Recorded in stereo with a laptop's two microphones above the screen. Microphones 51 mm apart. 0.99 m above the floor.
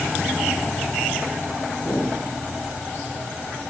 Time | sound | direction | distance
1.8 | a whoosh | 60° left (ahead or behind) | 3.5 m